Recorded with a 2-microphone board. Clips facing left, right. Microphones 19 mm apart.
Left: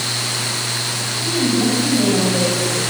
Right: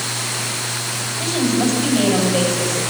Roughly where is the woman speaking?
Right.